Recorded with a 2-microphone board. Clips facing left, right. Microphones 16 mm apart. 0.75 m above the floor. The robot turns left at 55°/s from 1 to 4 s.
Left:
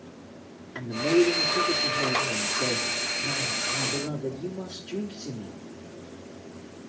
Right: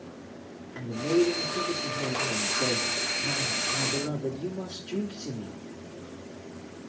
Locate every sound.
0.8 s a man speaking: 95° left, 1.4 m; by 5.6 s 70° right, 1.4 m